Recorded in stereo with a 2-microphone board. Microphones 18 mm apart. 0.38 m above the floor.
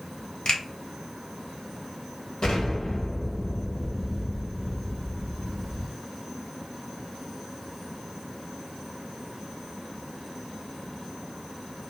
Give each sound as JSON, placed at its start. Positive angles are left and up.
{"t": 0.5, "sound": "a finger snap", "side_deg": 50, "distance_m": 0.9}
{"t": 2.4, "sound": "an explosion", "side_deg": 55, "distance_m": 1.3}